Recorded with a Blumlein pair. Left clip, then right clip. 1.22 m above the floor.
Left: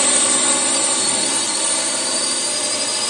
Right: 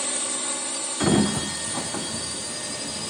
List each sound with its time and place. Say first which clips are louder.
0.0 s a drone: left 11 dB; 30° left
1.0 s a sliding door: left 3 dB; 50° right